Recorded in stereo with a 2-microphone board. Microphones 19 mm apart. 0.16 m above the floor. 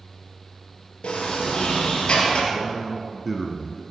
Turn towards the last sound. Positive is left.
turn(degrees=-5)  # may be behind; listen again after turning